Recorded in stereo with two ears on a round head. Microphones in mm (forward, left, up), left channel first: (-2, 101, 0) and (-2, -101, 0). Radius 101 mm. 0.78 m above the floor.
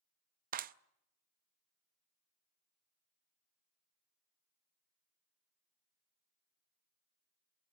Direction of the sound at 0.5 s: 40° right (ahead or behind).